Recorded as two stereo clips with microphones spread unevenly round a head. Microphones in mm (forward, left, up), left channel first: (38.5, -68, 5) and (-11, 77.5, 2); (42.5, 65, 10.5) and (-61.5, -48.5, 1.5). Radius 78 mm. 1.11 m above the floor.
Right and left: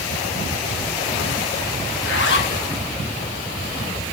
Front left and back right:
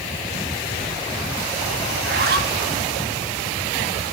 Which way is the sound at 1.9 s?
100° right.